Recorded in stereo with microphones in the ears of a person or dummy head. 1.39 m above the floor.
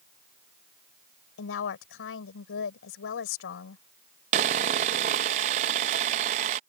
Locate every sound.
1.4 s a woman speaking: 85° left
4.3 s sawing: 40° right (ahead or behind)